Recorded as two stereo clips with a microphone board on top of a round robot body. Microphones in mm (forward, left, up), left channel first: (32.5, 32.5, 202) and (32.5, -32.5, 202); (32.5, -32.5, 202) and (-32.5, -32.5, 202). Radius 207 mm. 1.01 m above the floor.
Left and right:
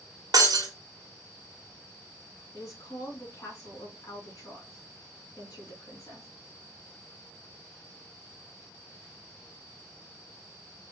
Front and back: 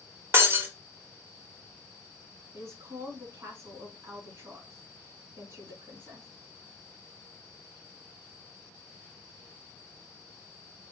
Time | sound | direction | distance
0.3 | breaking glass | 125° right | 0.8 m
2.5 | a woman speaking | 130° left | 2.5 m